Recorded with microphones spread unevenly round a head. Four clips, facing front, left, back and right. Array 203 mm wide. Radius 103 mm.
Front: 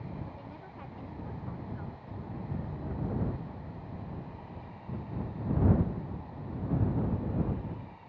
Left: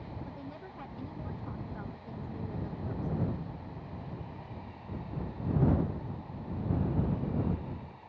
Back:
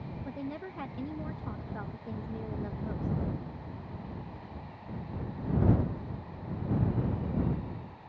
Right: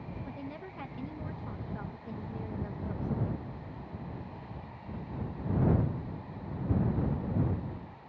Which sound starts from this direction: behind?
A woman speaking, at 0.2 s.